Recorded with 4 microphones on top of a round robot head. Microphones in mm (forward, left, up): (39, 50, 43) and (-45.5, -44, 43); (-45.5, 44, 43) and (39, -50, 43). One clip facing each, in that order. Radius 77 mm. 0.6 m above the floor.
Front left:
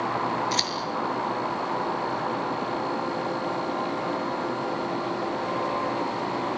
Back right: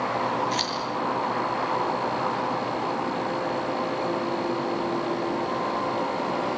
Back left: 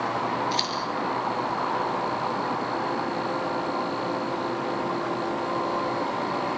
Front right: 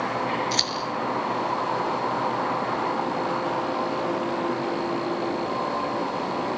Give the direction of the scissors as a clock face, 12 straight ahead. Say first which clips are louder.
Back right 1 dB, even; 12 o'clock.